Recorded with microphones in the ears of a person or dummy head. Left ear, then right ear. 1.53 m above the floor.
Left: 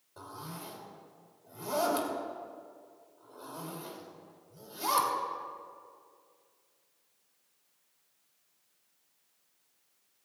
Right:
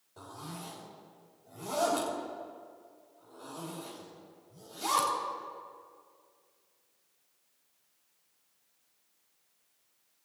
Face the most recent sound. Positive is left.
turn(degrees=40)  # may be behind; listen again after turning